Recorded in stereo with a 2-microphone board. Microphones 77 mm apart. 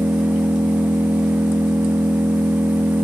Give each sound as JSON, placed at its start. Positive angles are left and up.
{"t": 0.0, "sound": "an engine running", "side_deg": -10, "distance_m": 2.0}